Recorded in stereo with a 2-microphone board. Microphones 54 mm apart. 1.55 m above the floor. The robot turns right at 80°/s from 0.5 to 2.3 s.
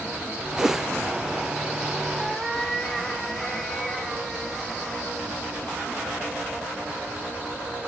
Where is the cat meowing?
5° right (ahead or behind), 1.4 m; by 5.1 s 5° left (ahead or behind), 1.4 m.